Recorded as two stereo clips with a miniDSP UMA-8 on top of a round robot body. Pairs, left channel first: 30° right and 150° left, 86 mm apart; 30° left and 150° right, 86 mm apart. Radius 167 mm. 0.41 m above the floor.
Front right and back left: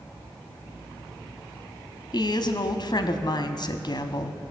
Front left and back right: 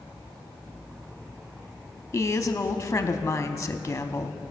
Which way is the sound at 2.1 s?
30° right.